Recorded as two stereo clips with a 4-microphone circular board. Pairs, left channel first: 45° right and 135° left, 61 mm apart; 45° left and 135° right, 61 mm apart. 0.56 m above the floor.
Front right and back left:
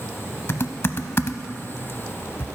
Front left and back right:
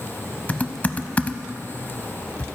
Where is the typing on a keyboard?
15° right, 0.5 m.